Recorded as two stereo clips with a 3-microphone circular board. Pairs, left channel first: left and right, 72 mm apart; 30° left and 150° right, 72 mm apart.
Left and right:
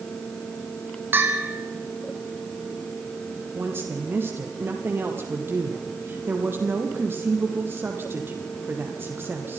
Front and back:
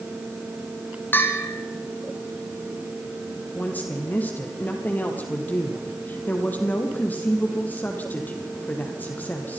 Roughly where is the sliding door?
No sliding door in this recording.